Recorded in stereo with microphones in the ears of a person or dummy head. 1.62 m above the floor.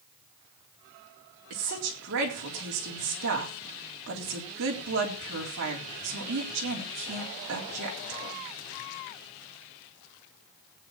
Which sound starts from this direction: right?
A woman speaking, at 1.5 s.